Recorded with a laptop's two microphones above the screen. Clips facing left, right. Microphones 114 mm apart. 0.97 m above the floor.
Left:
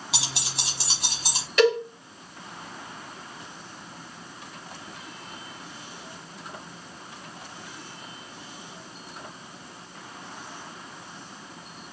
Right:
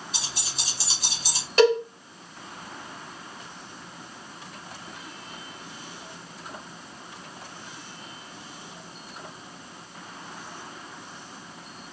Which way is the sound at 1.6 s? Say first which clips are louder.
Right 2 dB; 35° right (ahead or behind).